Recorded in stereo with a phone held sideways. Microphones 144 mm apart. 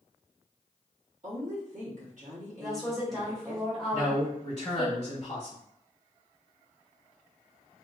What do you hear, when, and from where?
1.2 s a woman speaking: 60° right (ahead or behind), 1.2 m
2.6 s a woman speaking: centre (ahead or behind), 1.3 m
3.9 s a man speaking: 35° left (ahead or behind), 1.0 m